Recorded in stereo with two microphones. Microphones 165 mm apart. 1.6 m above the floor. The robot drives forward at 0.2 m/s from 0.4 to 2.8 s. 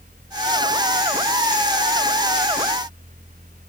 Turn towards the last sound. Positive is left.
No sound to turn to.